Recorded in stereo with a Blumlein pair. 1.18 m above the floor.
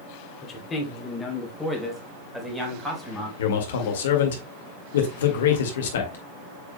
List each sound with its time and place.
0.4 s a man speaking: 25° left, 3 m; by 3.3 s 5° right, 5 m
3.4 s a man speaking: 60° left, 1.9 m